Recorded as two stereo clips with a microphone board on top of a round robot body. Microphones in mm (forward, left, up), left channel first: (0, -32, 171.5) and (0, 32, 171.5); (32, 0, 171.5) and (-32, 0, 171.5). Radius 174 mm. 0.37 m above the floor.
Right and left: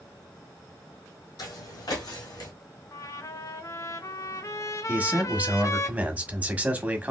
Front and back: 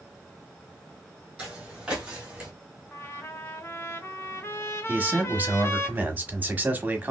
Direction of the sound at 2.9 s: 50° right.